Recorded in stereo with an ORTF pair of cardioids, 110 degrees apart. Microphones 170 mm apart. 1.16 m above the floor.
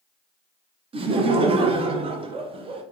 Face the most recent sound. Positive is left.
turn(degrees=-35)